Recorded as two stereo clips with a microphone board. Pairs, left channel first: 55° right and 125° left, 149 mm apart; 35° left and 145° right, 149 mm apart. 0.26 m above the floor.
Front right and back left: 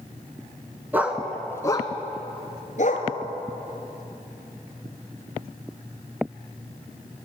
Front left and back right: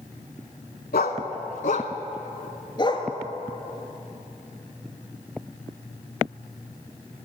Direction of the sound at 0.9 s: 50° left.